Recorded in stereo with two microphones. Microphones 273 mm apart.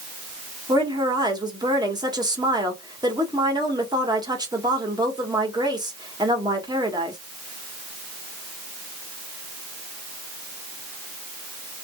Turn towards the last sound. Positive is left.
turn(degrees=-15)  # may be behind; listen again after turning